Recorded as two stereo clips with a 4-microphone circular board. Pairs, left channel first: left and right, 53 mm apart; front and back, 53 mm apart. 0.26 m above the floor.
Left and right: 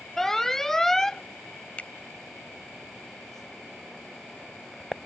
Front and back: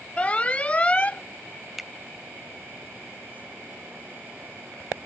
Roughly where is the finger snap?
Left.